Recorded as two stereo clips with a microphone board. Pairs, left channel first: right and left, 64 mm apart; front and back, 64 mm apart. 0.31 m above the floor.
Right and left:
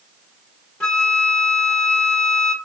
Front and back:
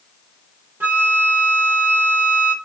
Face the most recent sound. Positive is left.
turn(degrees=-155)